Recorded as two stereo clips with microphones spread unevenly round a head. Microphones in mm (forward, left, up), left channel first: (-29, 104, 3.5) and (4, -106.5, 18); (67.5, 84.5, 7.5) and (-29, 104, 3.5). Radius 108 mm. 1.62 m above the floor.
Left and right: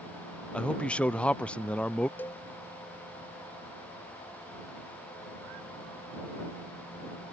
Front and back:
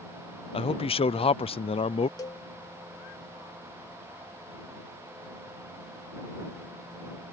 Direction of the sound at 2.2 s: 15° left.